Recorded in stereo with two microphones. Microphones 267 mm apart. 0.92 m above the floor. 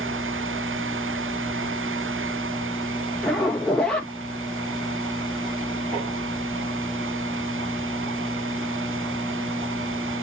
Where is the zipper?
5° left (ahead or behind), 1.6 m.